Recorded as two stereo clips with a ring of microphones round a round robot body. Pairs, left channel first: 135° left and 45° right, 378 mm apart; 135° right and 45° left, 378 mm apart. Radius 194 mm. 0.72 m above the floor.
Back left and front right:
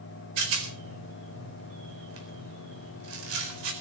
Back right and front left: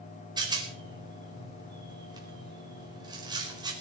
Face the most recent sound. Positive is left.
turn(degrees=-35)